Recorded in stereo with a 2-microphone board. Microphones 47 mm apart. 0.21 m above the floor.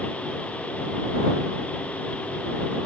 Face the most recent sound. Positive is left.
No sound to turn to.